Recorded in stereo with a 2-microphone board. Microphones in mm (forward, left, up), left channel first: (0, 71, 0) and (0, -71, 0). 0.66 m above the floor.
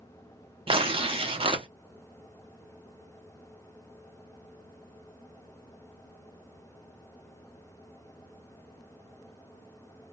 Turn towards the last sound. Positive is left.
turn(degrees=-40)  # may be behind; listen again after turning